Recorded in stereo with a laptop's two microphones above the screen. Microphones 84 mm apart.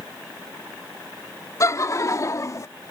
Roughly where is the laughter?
Left.